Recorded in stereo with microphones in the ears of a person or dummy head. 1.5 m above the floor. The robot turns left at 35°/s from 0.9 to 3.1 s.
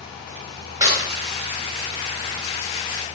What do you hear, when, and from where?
0.8 s a clap: 20° right (ahead or behind), 6 m; by 1.0 s 15° right (ahead or behind), 6 m